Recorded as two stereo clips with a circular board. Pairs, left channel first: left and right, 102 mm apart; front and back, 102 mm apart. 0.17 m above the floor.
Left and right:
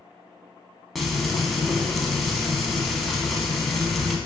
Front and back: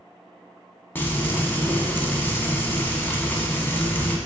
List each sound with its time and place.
0.9 s frying: straight ahead, 0.6 m